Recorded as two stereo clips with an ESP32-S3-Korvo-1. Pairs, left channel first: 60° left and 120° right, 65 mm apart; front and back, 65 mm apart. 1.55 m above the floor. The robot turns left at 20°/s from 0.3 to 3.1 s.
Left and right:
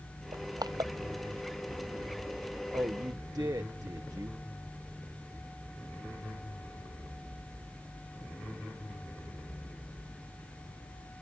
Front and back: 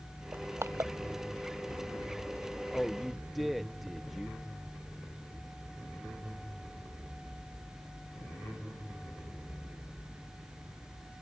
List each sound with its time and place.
0.3 s crushing: 125° right; by 0.9 s 135° right
2.7 s a man speaking: 85° right; by 4.4 s 90° right